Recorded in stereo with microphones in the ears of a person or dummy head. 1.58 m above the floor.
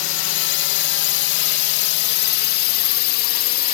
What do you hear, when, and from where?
0.0 s a drone: 70° left (ahead or behind); by 3.7 s 50° left (ahead or behind)